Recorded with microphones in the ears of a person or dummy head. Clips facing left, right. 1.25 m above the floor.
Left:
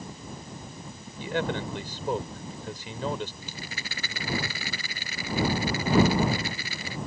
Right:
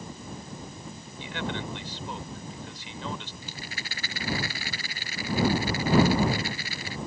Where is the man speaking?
40° left (ahead or behind).